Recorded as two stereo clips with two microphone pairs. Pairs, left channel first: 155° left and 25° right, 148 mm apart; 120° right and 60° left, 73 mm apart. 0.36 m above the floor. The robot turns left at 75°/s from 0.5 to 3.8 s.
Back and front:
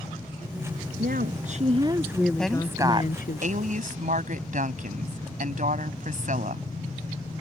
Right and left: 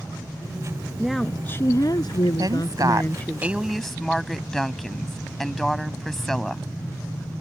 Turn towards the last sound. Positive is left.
turn(degrees=-35)